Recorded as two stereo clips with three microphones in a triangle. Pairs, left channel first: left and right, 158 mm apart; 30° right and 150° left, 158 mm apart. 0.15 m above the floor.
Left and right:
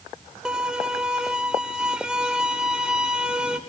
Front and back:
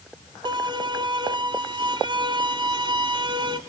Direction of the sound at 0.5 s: 170° right.